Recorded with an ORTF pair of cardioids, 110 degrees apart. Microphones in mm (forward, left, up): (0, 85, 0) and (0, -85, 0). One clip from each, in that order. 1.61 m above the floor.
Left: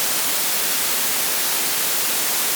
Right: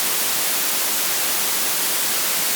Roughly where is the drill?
No drill in this recording.